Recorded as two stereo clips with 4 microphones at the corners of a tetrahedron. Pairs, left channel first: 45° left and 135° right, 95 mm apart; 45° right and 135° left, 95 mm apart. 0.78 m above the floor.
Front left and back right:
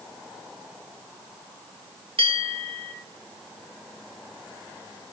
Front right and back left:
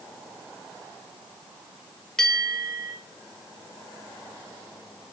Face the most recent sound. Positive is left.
turn(degrees=-130)